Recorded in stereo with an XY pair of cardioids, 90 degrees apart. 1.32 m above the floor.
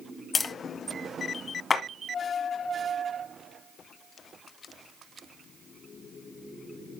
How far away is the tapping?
About 1.3 m.